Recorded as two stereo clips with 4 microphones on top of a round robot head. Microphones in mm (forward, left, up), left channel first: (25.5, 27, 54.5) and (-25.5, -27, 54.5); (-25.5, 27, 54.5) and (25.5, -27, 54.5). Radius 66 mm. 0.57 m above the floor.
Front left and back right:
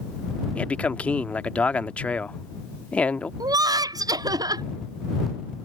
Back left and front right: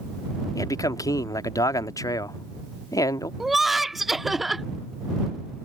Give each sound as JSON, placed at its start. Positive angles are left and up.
{"t": 0.6, "sound": "a man speaking", "azimuth_deg": 115}
{"t": 3.4, "sound": "laughter", "azimuth_deg": -135}